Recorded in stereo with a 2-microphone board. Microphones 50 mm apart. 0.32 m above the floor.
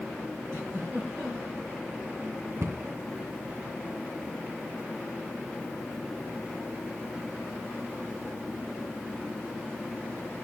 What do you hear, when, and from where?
0.5 s a giggle: 40° left (ahead or behind), 7.5 m
2.6 s a cupboard door: 55° right (ahead or behind), 2 m